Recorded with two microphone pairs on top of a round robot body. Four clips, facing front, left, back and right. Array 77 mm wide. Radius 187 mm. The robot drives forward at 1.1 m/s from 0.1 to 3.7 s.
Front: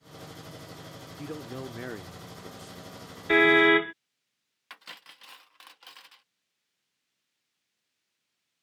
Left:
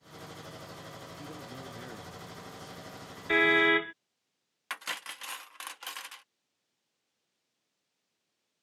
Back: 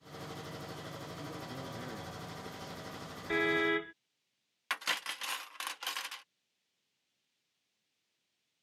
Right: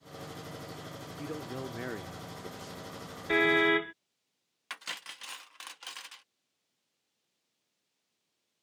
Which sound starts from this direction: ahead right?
A man speaking, at 1.2 s.